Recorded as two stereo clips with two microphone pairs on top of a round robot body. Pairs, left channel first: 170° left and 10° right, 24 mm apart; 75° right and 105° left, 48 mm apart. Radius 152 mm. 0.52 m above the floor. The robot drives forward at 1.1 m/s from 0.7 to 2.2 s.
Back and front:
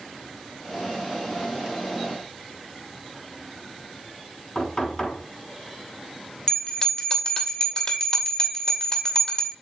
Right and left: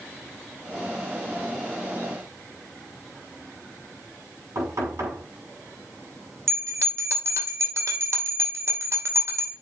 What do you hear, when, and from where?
4.5 s knocking: 115° left, 6.5 m
6.5 s a bell: 115° left, 2.5 m